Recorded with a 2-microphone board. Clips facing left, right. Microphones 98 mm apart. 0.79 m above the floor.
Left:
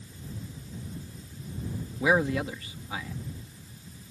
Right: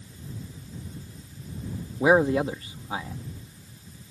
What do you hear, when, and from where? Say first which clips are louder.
2.0 s a man speaking: right 5 dB; 35° right (ahead or behind)